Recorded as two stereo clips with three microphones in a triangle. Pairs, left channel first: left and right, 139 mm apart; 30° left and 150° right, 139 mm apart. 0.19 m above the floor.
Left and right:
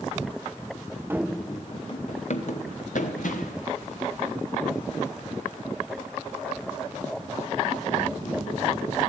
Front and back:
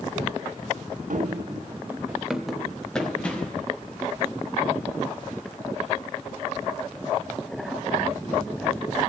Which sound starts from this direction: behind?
Running footsteps, at 1.1 s.